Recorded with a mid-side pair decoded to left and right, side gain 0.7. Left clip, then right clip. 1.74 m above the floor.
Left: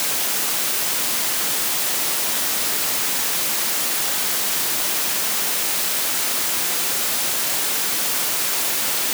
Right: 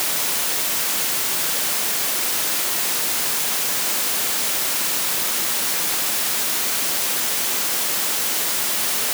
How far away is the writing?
No writing in this recording.